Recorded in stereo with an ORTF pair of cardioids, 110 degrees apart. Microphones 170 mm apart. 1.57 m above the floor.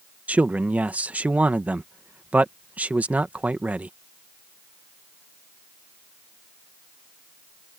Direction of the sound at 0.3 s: 10° right.